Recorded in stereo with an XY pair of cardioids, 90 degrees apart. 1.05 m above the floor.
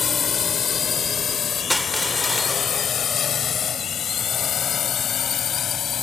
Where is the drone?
55° left; by 6.0 s 70° left.